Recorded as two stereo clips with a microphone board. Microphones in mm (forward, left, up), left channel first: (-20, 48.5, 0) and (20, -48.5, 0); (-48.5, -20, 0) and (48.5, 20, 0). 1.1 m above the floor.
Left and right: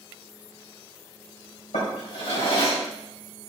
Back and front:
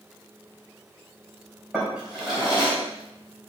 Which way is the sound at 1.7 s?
105° left.